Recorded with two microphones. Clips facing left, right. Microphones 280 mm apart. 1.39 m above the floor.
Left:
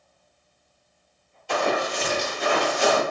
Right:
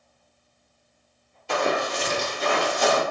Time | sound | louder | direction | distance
1.5 | running footsteps | even | 25° right (ahead or behind) | 1.8 m